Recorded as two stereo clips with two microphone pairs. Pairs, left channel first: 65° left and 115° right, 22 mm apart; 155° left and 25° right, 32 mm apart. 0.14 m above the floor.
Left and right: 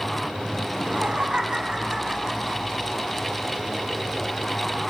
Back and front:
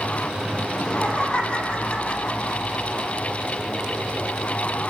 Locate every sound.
0.7 s laughter: 150° right, 7 m